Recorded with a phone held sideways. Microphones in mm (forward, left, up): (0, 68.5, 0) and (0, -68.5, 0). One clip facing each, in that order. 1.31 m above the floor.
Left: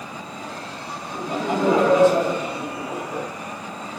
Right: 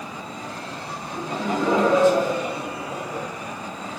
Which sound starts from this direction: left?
Laughter, at 1.1 s.